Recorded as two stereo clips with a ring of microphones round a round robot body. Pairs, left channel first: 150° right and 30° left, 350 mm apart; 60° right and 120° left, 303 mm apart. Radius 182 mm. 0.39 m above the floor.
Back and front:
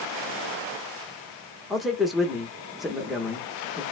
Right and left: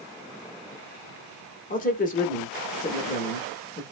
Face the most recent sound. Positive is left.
turn(degrees=-60)